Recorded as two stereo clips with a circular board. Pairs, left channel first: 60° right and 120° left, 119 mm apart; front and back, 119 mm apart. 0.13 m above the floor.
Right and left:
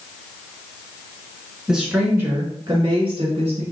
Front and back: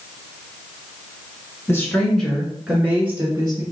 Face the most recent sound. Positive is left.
turn(degrees=120)